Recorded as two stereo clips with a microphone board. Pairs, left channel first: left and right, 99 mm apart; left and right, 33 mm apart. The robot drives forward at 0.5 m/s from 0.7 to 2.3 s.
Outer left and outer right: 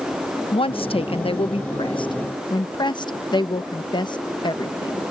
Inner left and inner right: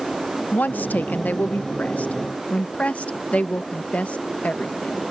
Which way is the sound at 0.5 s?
65° left (ahead or behind).